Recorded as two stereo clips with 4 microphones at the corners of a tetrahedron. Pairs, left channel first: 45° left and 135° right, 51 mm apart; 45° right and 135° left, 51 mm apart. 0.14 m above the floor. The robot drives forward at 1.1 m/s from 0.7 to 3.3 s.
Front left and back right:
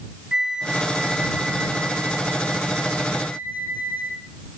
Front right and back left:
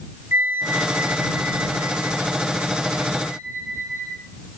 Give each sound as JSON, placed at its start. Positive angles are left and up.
{"t": 0.3, "sound": "a flute", "azimuth_deg": 150, "distance_m": 2.0}